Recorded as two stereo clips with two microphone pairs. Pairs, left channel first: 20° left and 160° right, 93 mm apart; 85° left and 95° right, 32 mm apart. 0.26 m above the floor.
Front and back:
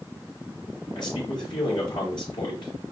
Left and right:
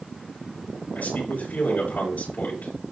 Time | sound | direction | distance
0.9 | a man speaking | 50° left | 5 m